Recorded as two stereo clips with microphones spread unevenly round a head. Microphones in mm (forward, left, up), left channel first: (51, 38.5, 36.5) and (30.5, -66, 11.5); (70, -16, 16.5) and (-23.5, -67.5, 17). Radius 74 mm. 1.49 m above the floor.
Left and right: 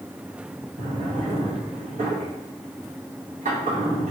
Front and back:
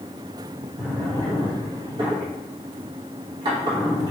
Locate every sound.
0.8 s a drawer: 135° right, 1.0 m